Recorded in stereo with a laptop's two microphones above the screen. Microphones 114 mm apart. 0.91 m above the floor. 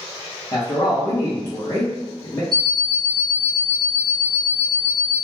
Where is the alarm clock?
45° right (ahead or behind), 0.6 m.